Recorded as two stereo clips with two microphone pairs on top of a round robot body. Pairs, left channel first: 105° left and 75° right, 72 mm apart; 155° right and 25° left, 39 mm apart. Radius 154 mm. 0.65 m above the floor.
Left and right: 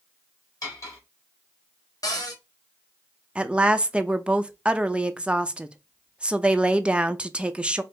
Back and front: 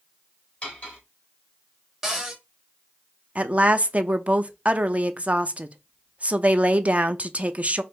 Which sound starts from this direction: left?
A cupboard door, at 2.0 s.